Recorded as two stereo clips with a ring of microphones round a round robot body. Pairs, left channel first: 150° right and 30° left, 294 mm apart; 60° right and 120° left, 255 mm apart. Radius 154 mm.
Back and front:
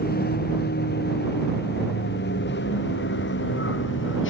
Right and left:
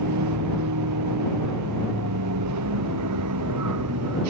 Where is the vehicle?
150° left; by 4.3 s 160° left.